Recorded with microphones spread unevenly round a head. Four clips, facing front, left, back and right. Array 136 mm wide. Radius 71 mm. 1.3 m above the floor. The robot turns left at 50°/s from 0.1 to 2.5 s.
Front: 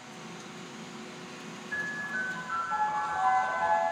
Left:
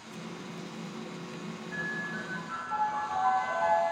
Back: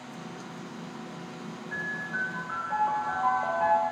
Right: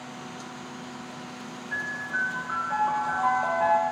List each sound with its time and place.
1.7 s a piano: 90° right, 1.6 m; by 3.8 s 130° right, 1.6 m